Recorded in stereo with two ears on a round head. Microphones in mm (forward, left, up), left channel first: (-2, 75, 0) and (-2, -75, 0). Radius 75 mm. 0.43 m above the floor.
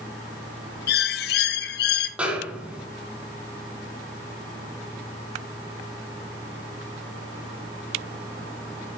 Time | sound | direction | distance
0.9 | a bird | 65° left (ahead or behind) | 0.8 m
2.2 | a snare drum | 5° right (ahead or behind) | 1.7 m